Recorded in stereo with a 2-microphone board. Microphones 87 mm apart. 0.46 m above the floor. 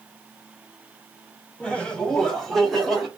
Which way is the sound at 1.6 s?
10° left (ahead or behind).